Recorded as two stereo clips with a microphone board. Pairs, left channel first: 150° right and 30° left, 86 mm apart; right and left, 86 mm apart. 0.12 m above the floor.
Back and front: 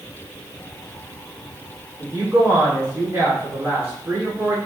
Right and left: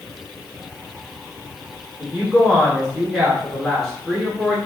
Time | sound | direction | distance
2.0 | a woman speaking | straight ahead | 1.6 m